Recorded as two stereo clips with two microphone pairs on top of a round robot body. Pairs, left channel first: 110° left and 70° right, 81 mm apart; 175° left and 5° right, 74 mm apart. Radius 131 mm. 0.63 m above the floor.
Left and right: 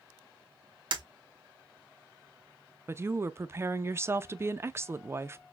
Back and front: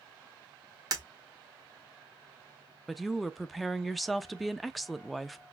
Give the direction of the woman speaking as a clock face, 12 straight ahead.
3 o'clock.